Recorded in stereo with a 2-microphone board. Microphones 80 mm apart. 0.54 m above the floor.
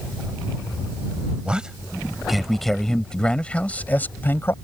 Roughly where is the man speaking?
Centre.